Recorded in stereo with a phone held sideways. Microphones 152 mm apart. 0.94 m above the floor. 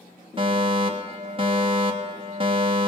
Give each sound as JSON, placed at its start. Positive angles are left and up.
{"t": 0.4, "sound": "a fire alarm", "side_deg": -35, "distance_m": 3.0}